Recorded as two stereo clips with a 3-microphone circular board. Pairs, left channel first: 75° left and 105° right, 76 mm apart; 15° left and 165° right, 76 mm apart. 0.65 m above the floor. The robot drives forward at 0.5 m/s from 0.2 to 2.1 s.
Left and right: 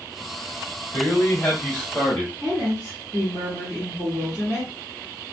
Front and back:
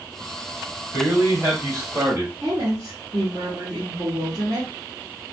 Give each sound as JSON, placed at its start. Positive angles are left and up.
{"t": 0.9, "sound": "a man speaking", "azimuth_deg": 140, "distance_m": 2.0}
{"t": 2.4, "sound": "a woman speaking", "azimuth_deg": -175, "distance_m": 1.6}